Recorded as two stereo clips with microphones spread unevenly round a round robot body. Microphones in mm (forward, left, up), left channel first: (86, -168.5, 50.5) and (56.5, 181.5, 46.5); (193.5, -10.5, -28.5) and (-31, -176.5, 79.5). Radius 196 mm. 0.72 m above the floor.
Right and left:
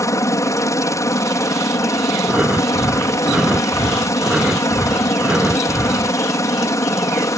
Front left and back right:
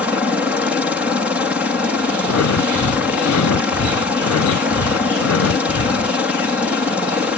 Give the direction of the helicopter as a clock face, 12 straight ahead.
12 o'clock.